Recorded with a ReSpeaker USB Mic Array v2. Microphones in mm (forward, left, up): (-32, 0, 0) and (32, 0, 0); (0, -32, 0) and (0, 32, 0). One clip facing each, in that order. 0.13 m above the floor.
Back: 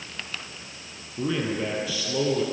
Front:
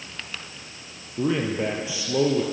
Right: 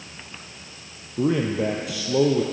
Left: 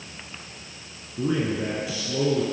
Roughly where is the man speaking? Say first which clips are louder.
Front 3 dB, right 3 dB; right.